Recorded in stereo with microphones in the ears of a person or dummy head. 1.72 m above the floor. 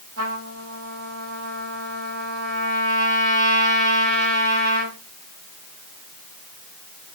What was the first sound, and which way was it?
A trumpet, 85° right.